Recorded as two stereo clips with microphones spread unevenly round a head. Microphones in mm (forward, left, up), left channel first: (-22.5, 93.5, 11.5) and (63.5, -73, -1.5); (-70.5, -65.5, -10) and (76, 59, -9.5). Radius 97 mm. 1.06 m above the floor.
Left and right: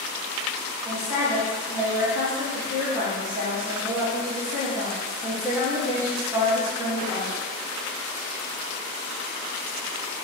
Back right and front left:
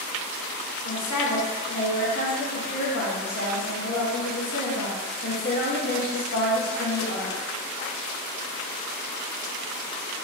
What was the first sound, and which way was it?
A woman speaking, 130° right.